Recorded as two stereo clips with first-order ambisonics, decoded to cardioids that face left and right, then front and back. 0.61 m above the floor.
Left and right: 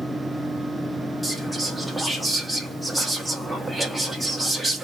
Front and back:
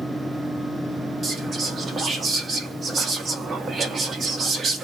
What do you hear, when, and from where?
1.2 s whispering: 175° right, 0.6 m